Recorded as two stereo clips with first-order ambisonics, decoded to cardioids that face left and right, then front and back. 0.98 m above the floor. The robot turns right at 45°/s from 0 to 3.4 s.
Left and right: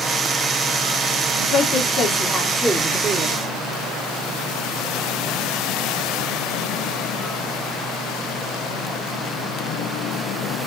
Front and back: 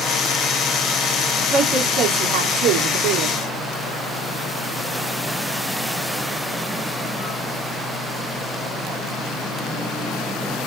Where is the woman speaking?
120° left, 1.5 m; by 3.4 s 155° right, 1.5 m.